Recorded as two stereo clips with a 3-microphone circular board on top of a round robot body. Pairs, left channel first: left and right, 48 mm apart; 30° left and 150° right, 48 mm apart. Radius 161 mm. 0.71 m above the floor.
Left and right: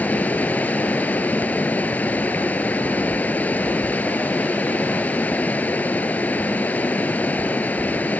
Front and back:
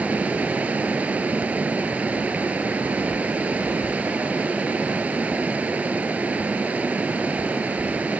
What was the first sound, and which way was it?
Running water, 145° left.